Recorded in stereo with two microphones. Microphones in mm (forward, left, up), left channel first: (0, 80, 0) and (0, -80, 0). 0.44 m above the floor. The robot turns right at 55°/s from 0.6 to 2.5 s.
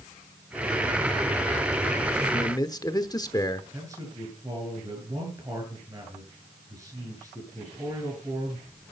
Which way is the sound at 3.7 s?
20° right (ahead or behind).